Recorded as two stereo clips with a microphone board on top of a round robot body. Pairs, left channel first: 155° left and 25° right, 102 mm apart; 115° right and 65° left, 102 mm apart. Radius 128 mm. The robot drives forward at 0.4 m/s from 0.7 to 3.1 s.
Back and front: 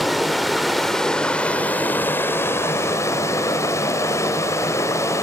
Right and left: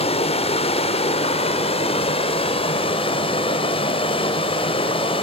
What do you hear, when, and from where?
0.0 s running water: 110° right, 1.4 m; by 5.2 s 140° right, 1.9 m